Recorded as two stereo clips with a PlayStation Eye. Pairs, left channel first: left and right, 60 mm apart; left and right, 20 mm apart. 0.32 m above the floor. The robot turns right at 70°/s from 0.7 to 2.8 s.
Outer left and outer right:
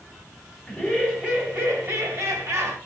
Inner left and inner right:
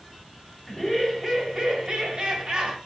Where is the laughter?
170° left, 1.4 m; by 2.8 s 45° right, 1.4 m.